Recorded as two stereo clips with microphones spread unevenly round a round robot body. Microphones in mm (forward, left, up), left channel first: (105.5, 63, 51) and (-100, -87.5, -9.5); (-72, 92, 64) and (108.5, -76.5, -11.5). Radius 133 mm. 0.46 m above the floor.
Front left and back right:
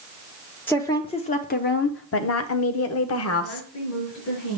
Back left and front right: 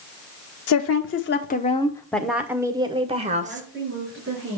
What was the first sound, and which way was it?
A woman speaking, 130° left.